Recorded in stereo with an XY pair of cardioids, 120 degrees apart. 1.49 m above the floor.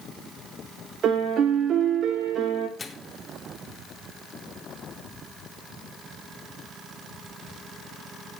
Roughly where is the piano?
Ahead right.